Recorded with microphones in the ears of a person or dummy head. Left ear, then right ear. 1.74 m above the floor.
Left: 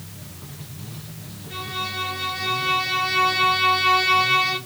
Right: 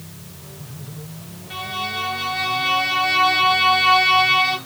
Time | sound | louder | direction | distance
1.5 | a violin | right 3 dB | 60° right (ahead or behind) | 2 m